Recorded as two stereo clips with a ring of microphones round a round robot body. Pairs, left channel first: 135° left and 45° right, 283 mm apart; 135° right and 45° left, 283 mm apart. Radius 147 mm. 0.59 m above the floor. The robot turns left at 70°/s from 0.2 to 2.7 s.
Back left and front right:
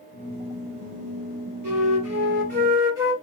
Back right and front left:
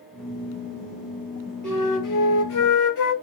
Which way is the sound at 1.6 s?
50° right.